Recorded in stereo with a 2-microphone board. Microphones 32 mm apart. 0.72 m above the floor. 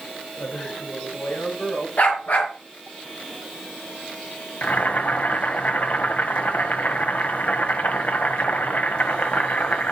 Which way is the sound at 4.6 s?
60° left (ahead or behind).